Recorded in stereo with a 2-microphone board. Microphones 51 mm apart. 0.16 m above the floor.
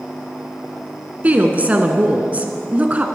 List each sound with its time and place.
1.2 s a woman speaking: 30° right (ahead or behind), 1.5 m